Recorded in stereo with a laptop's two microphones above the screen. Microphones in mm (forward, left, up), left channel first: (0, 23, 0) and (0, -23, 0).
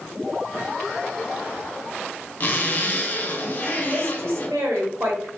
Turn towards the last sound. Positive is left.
turn(degrees=-70)  # may be behind; listen again after turning